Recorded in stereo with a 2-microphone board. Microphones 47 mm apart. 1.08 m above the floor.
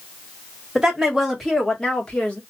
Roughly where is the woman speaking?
Centre.